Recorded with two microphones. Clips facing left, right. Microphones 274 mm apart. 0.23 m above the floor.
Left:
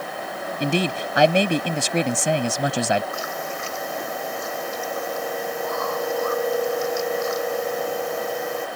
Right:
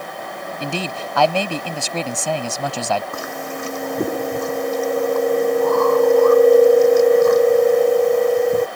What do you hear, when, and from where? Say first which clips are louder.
0.6 s a man speaking: left 4 dB; 20° left (ahead or behind)
3.1 s chewing: right 3 dB; 60° right (ahead or behind)